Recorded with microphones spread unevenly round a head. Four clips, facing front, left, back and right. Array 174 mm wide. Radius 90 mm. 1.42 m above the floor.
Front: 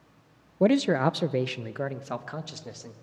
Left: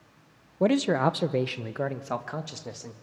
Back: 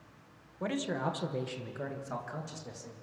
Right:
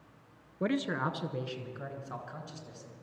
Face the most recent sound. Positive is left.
turn(degrees=60)